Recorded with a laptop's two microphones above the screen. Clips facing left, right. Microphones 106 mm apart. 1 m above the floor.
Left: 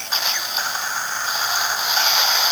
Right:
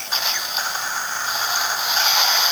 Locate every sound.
Only background noise.